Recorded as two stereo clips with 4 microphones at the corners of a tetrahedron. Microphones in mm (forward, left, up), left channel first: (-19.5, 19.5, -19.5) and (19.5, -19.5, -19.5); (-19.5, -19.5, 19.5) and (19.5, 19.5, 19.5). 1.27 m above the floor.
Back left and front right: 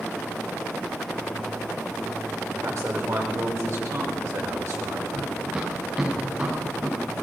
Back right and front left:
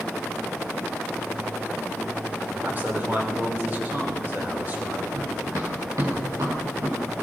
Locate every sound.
2.5 s a man speaking: 10° right, 5.5 m
5.1 s running footsteps: 30° left, 7 m; by 7.2 s 20° left, 7.5 m